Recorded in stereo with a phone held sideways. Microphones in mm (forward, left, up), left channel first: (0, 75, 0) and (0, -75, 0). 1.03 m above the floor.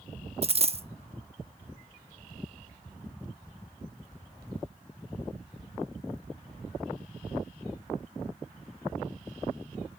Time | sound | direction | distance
0.4 | a dropped coin | 45° right (ahead or behind) | 0.6 m